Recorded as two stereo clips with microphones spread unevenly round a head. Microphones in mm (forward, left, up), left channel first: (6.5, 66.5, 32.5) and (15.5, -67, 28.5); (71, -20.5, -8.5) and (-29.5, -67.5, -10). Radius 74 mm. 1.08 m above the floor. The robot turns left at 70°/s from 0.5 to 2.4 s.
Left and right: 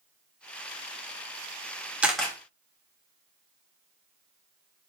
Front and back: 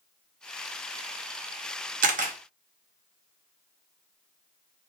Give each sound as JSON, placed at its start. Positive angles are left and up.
{"t": 2.0, "sound": "a camera shutter", "azimuth_deg": -165, "distance_m": 0.6}